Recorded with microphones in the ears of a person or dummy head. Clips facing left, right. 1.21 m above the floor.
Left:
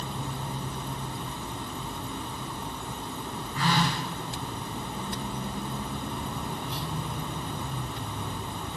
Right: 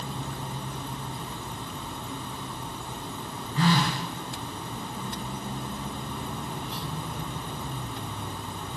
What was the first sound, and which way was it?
A phone buzzing, 35° right (ahead or behind).